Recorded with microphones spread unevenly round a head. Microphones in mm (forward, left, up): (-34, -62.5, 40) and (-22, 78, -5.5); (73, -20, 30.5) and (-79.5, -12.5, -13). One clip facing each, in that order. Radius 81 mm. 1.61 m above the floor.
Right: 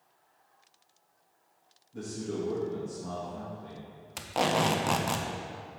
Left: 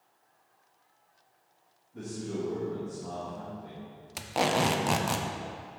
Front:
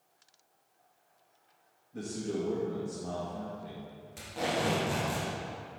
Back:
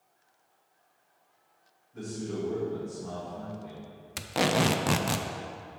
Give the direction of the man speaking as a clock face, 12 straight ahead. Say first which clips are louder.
Right 1 dB, even; 2 o'clock.